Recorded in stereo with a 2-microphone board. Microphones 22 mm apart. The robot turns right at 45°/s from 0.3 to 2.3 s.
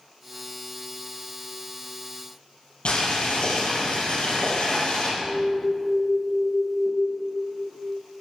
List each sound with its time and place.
2.9 s boiling: 80° left, 5 m
5.2 s an alarm: 25° left (ahead or behind), 1.3 m